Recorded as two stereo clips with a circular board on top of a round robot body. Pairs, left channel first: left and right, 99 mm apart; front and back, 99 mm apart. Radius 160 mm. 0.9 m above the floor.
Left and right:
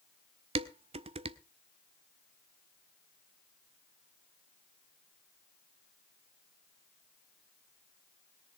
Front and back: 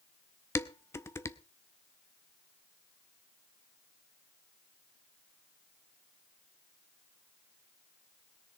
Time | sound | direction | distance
0.6 | dishes clattering | 65° right | 0.7 m